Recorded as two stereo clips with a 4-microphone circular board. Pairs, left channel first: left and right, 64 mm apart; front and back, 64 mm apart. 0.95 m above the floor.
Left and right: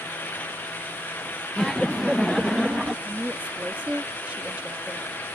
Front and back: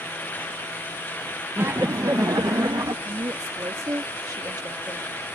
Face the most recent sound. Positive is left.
turn(degrees=-155)